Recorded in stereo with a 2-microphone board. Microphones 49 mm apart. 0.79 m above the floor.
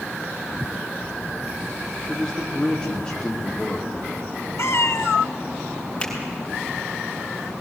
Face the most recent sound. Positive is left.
turn(degrees=20)  # may be behind; listen again after turning